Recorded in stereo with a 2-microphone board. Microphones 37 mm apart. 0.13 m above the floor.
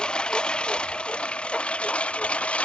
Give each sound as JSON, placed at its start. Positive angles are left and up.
{"t": 0.0, "sound": "a lawn mower", "side_deg": 30}